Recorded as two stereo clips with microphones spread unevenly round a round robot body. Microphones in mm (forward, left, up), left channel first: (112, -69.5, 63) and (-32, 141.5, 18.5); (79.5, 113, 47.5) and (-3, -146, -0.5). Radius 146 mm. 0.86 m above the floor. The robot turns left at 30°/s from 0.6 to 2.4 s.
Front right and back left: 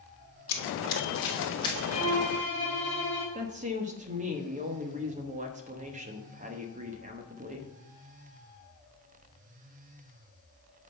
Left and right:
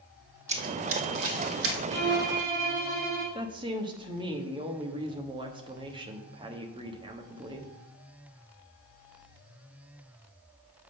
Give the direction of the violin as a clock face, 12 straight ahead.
5 o'clock.